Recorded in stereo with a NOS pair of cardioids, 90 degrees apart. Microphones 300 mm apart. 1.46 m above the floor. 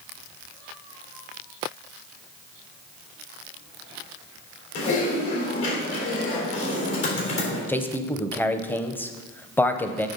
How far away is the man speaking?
About 0.8 m.